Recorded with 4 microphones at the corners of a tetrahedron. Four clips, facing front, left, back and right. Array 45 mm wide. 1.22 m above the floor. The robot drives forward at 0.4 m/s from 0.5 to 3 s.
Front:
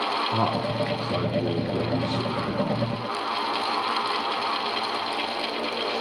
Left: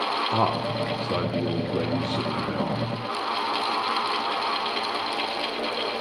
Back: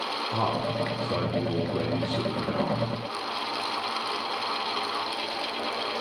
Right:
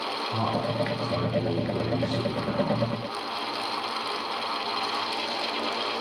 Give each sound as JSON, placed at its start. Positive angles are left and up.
{"t": 0.3, "sound": "a man speaking", "azimuth_deg": 80, "distance_m": 0.8}